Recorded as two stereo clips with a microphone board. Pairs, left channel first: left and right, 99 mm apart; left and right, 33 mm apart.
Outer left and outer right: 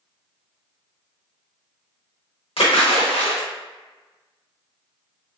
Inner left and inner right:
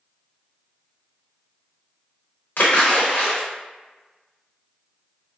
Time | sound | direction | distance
2.6 | a splash | 70° left (ahead or behind) | 1.0 m